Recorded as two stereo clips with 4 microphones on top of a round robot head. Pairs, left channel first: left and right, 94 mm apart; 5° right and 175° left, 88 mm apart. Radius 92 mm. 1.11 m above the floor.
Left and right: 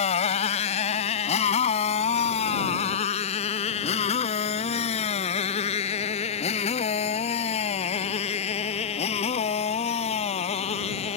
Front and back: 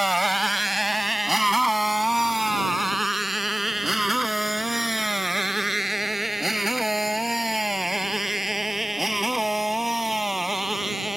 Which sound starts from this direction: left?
A motorcycle, at 0.0 s.